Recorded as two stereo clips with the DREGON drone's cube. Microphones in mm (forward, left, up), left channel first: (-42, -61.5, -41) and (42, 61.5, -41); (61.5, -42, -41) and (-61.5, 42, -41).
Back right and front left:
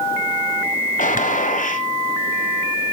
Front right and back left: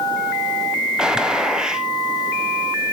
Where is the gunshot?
130° right, 1.3 m.